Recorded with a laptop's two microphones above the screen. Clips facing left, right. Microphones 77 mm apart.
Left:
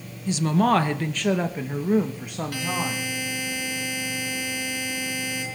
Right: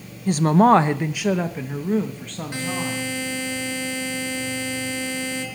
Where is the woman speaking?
50° right (ahead or behind), 0.5 m; by 3.1 s 20° left (ahead or behind), 1.5 m.